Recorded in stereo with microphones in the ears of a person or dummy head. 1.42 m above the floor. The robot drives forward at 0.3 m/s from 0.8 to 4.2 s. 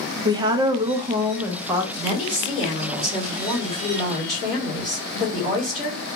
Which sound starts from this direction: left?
A woman speaking, at 1.9 s.